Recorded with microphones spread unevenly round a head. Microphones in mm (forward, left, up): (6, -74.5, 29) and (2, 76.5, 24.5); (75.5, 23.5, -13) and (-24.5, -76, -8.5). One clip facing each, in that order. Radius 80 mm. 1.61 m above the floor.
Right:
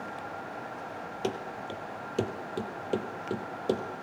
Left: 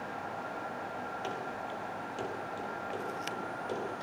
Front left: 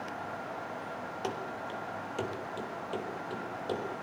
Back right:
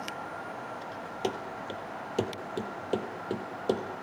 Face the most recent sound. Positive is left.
turn(degrees=-105)